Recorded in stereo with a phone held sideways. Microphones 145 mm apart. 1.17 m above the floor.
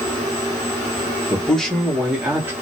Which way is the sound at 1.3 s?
10° left (ahead or behind).